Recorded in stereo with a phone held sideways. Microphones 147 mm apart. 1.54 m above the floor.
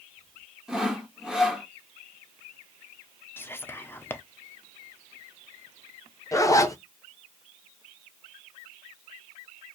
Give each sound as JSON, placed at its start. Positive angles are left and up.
{"t": 0.7, "sound": "sawing", "side_deg": -5, "distance_m": 1.3}
{"t": 3.4, "sound": "whispering", "side_deg": 15, "distance_m": 0.7}
{"t": 6.3, "sound": "a zipper", "side_deg": 25, "distance_m": 0.7}